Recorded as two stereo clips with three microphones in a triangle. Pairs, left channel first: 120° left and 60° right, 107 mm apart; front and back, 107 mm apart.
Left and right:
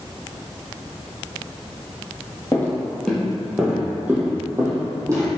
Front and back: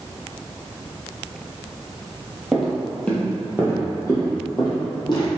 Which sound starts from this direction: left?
Footsteps, at 2.5 s.